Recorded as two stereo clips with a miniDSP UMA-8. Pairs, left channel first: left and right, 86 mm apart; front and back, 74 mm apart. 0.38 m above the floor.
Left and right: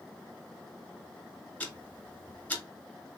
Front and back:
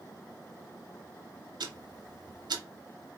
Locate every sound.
1.6 s ticking: 160° left, 0.6 m